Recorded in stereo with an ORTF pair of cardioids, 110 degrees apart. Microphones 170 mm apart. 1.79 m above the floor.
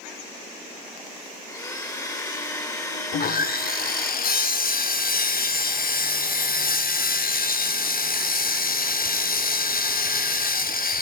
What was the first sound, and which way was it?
A blender, 20° left.